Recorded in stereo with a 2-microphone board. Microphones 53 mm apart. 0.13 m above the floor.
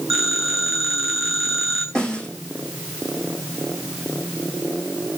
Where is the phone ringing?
10° right (ahead or behind), 7.5 m.